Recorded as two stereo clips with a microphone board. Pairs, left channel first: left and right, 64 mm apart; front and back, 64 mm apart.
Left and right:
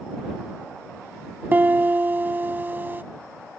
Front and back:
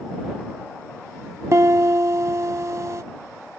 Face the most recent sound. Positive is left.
turn(degrees=-145)